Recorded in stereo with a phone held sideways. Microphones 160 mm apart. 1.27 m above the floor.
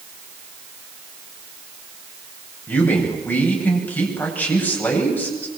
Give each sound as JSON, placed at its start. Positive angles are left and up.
{"t": 2.7, "sound": "a man speaking", "side_deg": 10, "distance_m": 8.5}